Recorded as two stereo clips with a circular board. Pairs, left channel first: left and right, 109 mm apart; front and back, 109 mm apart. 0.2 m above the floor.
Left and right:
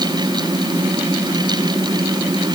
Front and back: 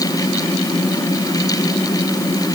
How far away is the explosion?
No explosion in this recording.